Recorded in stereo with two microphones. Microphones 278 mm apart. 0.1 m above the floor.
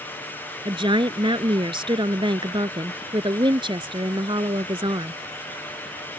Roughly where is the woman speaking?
Centre.